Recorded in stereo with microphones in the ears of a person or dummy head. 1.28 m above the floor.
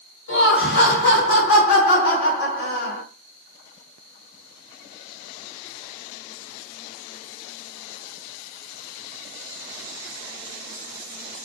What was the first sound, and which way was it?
Laughter, 75° left (ahead or behind).